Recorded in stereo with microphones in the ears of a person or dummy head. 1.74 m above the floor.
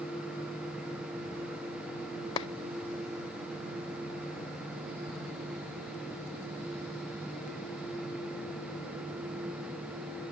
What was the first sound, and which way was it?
A clap, 30° left (ahead or behind).